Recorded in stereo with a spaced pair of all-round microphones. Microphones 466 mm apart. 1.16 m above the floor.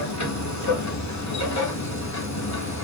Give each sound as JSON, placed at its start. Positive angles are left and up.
{"t": 0.0, "sound": "a machine running", "side_deg": 35, "distance_m": 1.0}